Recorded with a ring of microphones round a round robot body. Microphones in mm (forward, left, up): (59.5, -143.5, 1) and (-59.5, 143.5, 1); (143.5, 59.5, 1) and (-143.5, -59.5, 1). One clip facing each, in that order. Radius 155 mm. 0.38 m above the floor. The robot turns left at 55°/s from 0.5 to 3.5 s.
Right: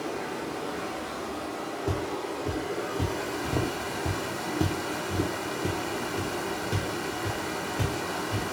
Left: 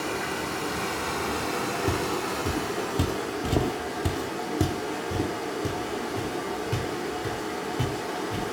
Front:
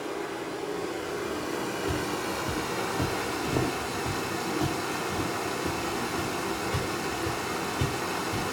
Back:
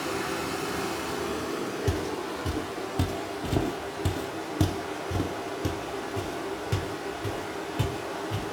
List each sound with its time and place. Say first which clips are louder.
0.0 s running water: left 2 dB, back 2 dB; 165° left, 1.0 m; by 8.5 s straight ahead, 1.0 m
1.9 s footsteps: left 1 dB, even; 175° right, 1.3 m; by 8.4 s 140° right, 3 m